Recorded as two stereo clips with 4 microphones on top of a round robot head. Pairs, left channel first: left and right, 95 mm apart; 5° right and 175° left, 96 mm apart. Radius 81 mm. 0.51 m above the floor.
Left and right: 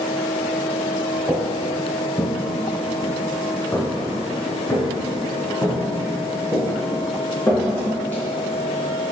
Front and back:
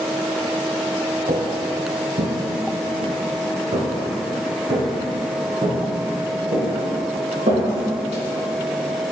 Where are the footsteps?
175° right, 0.7 m; by 8.2 s 160° left, 4.5 m.